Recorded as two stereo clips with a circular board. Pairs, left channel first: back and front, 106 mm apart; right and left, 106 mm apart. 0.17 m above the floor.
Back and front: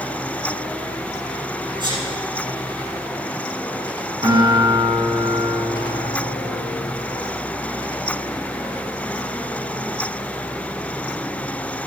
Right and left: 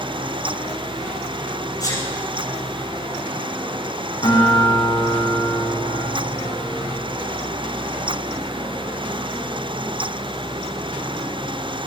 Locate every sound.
1.8 s a sneeze: 40° right, 8 m
4.2 s a guitar: 45° right, 6.5 m